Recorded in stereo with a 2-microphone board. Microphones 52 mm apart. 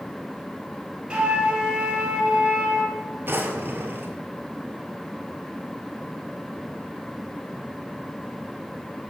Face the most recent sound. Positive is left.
turn(degrees=-40)  # may be behind; listen again after turning